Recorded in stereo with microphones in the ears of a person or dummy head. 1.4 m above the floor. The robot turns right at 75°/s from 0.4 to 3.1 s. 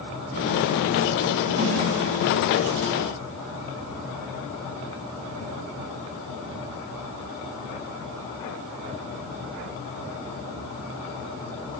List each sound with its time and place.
1.6 s a snare drum: 50° right (ahead or behind), 3.5 m; by 1.7 s 60° right (ahead or behind), 3.5 m